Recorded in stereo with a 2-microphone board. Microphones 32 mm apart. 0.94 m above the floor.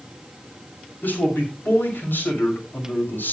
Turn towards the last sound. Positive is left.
turn(degrees=80)